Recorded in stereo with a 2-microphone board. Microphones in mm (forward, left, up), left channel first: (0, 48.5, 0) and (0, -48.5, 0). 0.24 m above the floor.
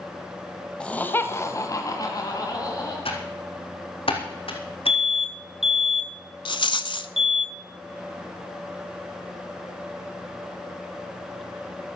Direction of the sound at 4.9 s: Centre (ahead or behind).